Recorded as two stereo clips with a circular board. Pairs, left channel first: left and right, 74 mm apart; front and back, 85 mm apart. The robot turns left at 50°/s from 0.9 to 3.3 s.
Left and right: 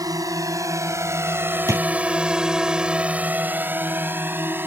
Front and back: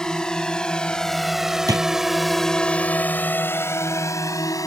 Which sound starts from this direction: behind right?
A drawer, at 1.7 s.